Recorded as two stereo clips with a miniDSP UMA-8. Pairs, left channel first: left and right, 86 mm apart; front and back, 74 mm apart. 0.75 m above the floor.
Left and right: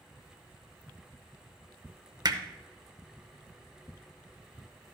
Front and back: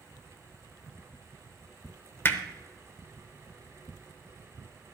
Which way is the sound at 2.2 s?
55° right.